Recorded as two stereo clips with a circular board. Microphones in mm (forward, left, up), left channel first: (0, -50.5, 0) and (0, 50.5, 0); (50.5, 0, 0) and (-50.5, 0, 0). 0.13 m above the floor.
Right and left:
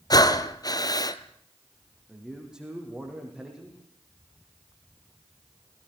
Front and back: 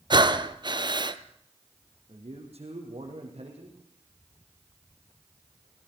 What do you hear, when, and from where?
0.1 s breathing: 140° right, 0.8 m
2.1 s a man speaking: 175° left, 5 m